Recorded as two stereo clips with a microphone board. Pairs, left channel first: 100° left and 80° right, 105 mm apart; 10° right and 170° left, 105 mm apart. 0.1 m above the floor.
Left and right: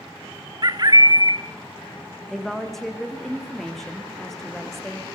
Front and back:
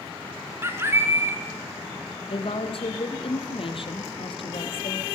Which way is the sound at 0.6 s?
125° right.